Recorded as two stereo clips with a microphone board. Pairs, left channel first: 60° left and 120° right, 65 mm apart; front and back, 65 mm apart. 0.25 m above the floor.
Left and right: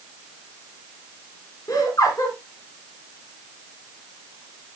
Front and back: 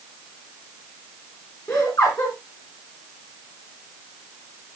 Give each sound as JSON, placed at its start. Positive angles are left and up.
{"t": 1.7, "sound": "laughter", "azimuth_deg": 30, "distance_m": 3.0}